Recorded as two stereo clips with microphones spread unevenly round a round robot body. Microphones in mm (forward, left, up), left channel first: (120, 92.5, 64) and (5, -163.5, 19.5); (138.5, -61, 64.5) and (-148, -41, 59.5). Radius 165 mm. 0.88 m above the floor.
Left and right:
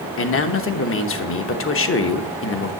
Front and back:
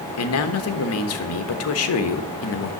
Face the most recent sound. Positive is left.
turn(degrees=20)